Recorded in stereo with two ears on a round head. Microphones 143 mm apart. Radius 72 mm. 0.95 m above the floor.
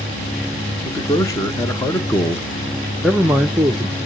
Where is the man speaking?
20° left (ahead or behind), 1.3 m; by 4.0 s 15° right (ahead or behind), 0.8 m.